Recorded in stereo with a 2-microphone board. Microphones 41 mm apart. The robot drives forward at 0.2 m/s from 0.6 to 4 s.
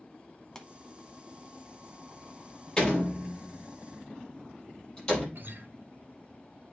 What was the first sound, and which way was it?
A pop, 20° left (ahead or behind).